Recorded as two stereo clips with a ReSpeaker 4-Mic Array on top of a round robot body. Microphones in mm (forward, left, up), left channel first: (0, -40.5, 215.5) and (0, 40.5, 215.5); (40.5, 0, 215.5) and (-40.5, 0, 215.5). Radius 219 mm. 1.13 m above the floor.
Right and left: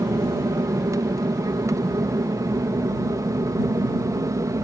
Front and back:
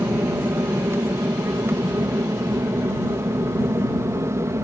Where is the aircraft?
125° left; by 4.7 s 130° left.